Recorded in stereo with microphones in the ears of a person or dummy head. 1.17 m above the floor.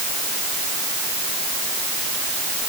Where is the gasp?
I don't hear a gasp.